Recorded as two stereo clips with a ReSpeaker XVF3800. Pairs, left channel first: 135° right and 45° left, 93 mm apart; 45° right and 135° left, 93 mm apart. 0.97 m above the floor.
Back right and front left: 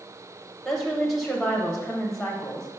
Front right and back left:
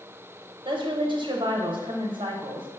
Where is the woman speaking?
140° left, 0.7 m.